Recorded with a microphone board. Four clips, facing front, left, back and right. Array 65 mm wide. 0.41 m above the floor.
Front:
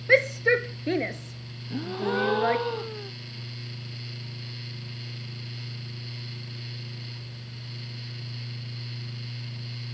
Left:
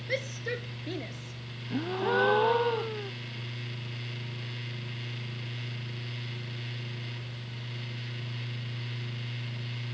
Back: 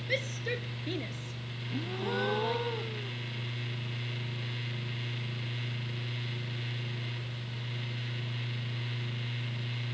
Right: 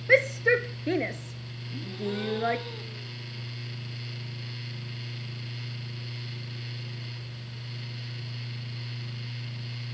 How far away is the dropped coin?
I don't hear a dropped coin.